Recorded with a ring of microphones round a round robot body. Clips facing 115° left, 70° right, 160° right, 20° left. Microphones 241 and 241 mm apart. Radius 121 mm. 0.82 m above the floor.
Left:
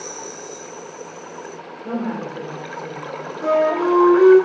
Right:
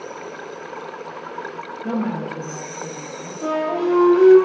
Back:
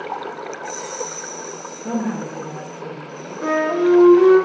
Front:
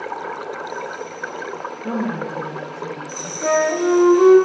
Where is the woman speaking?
65° right, 0.6 m; by 3.3 s 50° right, 1.3 m.